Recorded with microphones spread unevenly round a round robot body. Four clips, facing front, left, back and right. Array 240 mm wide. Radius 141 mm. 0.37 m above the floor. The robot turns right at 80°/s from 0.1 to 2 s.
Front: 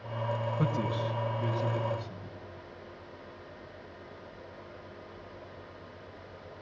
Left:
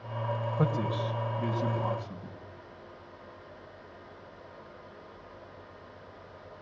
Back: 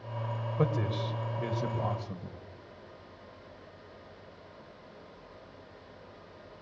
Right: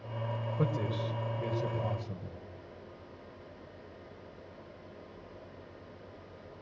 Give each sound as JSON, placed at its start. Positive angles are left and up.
{"t": 0.6, "sound": "a man speaking", "azimuth_deg": 140, "distance_m": 1.9}